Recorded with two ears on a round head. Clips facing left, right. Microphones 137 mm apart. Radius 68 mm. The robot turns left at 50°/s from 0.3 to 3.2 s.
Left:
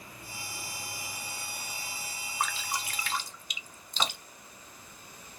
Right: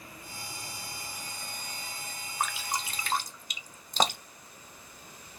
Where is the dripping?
Centre (ahead or behind), 0.6 m; by 4.5 s 40° right (ahead or behind), 0.6 m.